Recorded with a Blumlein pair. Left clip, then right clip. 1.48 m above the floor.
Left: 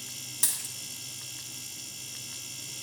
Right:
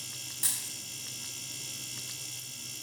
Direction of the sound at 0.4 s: 65° left.